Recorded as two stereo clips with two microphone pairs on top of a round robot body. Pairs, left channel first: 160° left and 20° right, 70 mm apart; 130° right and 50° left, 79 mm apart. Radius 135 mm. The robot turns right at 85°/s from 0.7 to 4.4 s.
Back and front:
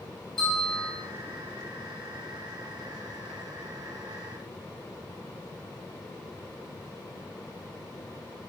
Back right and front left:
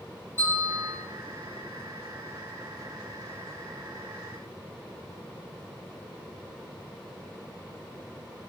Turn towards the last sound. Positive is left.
turn(degrees=120)